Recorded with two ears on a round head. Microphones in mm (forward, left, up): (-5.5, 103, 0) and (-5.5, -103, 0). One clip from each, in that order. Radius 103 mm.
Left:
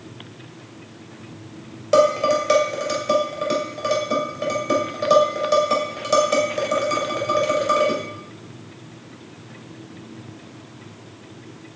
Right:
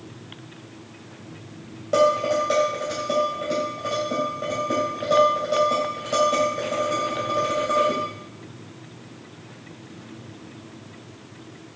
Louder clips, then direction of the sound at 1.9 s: Left 3 dB; 55° left (ahead or behind).